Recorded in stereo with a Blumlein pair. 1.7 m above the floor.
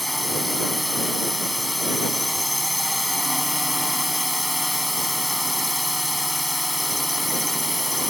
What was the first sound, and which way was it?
A drone, straight ahead.